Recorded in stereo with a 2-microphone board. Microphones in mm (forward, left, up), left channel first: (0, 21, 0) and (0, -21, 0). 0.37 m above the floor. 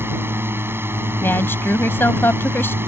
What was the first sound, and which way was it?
A drone, 65° right (ahead or behind).